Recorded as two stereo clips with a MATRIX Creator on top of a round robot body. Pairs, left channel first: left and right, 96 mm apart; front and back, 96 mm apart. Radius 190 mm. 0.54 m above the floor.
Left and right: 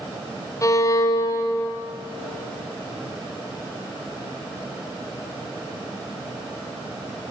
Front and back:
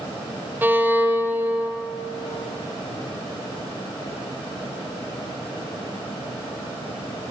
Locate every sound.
0.6 s a violin: 120° left, 0.9 m